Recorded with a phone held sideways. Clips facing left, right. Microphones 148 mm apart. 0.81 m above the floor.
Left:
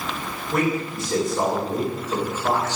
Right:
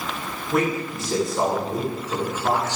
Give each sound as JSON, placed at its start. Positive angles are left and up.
{"t": 0.5, "sound": "a man speaking", "side_deg": 0, "distance_m": 3.0}